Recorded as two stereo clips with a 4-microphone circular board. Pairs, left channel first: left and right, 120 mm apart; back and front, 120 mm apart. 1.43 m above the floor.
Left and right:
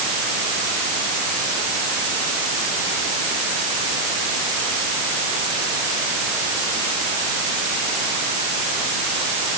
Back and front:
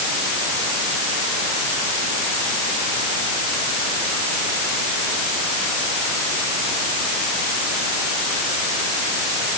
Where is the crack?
I don't hear a crack.